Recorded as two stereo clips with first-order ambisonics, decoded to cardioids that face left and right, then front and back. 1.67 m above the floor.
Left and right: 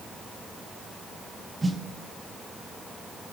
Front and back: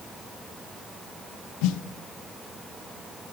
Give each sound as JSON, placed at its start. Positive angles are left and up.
{"t": 1.6, "sound": "a snare drum", "azimuth_deg": -10, "distance_m": 1.1}